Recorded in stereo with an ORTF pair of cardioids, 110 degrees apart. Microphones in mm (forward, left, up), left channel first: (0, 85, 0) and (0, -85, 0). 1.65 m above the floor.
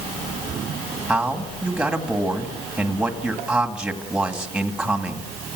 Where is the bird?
I don't hear a bird.